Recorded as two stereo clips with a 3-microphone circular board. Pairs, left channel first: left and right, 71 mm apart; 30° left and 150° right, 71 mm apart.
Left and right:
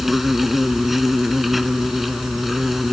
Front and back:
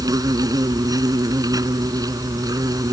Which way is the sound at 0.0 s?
175° right.